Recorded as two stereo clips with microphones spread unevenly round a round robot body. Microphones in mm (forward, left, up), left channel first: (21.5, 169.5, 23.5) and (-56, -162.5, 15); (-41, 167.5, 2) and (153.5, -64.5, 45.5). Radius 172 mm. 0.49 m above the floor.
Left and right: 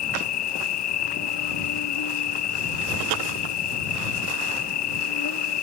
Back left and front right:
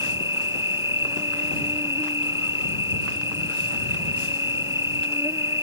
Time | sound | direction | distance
0.0 | an insect | 30° left | ?